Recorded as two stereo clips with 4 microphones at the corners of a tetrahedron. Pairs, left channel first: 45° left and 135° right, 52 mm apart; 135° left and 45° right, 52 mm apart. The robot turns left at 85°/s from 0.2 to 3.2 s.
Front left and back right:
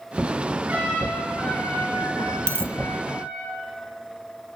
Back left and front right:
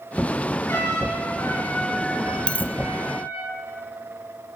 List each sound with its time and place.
0.7 s a trumpet: 165° left, 7 m; by 3.5 s 50° right, 7 m
2.5 s a dropped coin: 160° right, 0.9 m; by 2.7 s straight behind, 0.9 m